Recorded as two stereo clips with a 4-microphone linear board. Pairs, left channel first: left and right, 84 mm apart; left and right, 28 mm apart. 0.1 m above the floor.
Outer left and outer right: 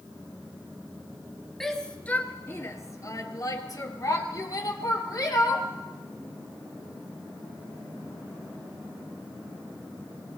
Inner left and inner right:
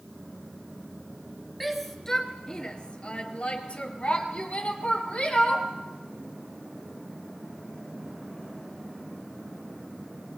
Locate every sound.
1.6 s a shout: 5° left (ahead or behind), 1.8 m; by 5.7 s 45° left (ahead or behind), 4.5 m